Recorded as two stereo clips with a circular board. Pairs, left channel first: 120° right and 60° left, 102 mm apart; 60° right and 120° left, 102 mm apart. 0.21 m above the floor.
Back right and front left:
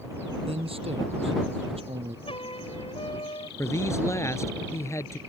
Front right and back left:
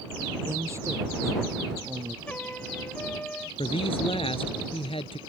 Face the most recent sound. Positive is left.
turn(degrees=-60)